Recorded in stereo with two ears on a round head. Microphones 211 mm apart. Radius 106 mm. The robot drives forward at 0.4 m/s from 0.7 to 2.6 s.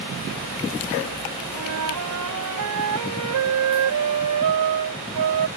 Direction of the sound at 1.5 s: 75° right (ahead or behind).